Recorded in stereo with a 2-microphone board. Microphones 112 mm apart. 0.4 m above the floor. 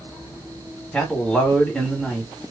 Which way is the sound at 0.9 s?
10° left (ahead or behind).